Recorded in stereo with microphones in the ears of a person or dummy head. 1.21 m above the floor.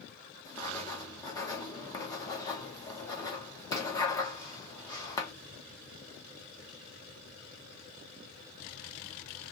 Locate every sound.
0.5 s writing: 15° left (ahead or behind), 1.0 m